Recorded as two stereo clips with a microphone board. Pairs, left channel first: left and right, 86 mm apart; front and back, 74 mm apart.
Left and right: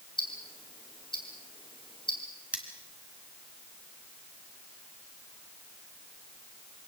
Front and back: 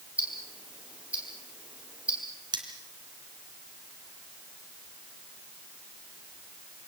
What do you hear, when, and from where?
0.2 s ticking: 110° left, 4 m
2.5 s cutlery clinking: 165° right, 2.5 m